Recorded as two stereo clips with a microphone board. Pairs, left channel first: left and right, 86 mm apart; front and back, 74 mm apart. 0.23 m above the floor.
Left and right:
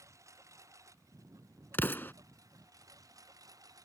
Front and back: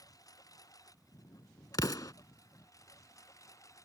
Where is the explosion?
25° left.